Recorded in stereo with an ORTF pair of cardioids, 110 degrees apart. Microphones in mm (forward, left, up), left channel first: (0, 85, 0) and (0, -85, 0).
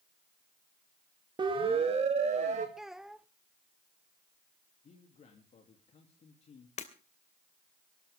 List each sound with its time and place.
1.4 s a siren: 30° right, 3 m; by 2.7 s 45° right, 4.5 m
2.8 s a child speaking: straight ahead, 0.8 m
4.8 s a man speaking: 40° left, 3 m
6.8 s breaking glass: 45° left, 2.5 m